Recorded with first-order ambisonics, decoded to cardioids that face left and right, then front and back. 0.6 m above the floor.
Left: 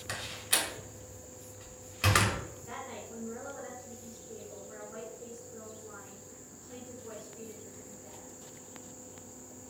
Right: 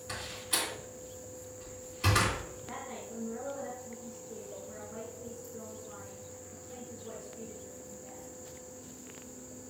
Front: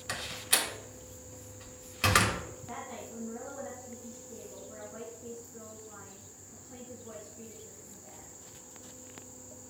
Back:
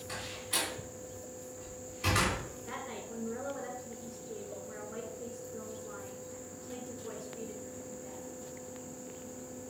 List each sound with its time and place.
0.1 s a door slam: 35° left, 1.5 m
2.7 s a woman speaking: 165° left, 1.7 m